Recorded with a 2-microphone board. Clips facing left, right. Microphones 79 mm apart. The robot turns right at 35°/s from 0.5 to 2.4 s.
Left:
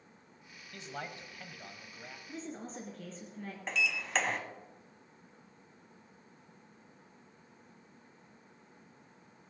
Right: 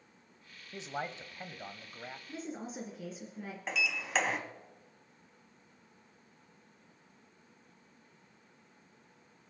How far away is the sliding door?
About 1.6 m.